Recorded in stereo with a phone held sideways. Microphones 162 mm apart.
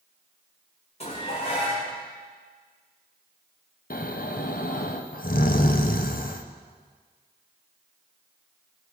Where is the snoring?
60° left (ahead or behind), 0.8 m.